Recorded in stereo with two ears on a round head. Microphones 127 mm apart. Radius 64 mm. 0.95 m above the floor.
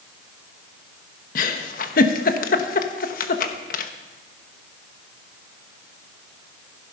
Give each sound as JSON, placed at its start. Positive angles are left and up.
{"t": 1.4, "sound": "a giggle", "side_deg": 60, "distance_m": 1.1}